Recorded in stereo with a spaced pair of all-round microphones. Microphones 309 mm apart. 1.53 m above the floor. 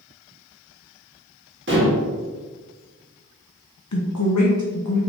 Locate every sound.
1.7 s dishes clattering: 40° right (ahead or behind), 1.1 m
3.9 s a woman speaking: 65° left (ahead or behind), 0.7 m